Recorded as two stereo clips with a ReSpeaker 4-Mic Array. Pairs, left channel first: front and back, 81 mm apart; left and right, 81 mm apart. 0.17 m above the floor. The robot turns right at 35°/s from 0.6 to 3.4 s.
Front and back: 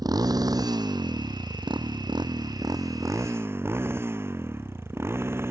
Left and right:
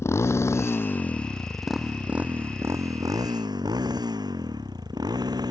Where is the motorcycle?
145° left; by 5.5 s 120° right.